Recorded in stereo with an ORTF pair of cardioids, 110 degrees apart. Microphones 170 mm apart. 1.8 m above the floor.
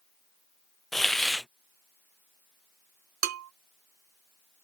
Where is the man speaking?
No man speaking in this recording.